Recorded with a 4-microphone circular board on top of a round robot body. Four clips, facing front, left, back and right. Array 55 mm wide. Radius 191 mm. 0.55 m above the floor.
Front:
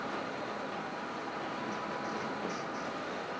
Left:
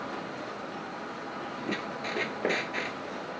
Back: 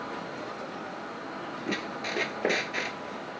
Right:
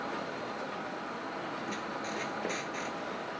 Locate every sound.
1.7 s a squeak: 150° left